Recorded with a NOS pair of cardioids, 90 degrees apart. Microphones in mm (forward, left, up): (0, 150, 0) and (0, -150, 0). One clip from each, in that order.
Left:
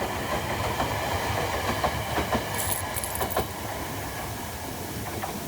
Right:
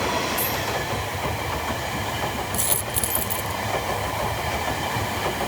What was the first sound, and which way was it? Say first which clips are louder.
A dropped coin: right 3 dB; 50° right.